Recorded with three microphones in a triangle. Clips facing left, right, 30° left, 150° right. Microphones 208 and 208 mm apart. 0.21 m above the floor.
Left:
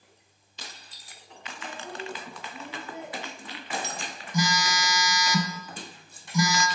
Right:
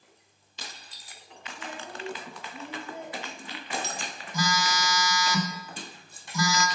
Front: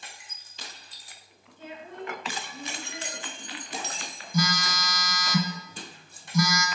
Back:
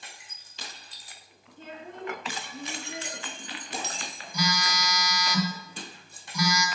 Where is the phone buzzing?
25° left, 1.0 m.